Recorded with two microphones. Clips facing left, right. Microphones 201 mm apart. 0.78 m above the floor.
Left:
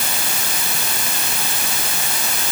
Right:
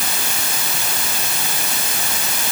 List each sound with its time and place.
Only background noise.